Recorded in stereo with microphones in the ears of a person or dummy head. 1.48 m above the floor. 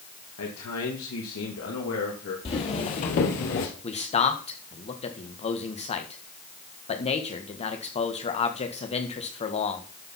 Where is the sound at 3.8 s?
30° left (ahead or behind), 1.5 m.